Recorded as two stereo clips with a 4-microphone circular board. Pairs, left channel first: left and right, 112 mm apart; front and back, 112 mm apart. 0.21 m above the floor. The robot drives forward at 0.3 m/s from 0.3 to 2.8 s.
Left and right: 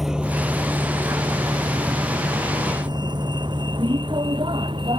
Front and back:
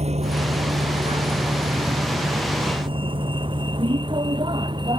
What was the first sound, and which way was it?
A vehicle, straight behind.